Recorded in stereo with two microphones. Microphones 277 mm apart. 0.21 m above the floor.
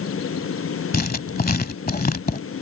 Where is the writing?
30° left (ahead or behind).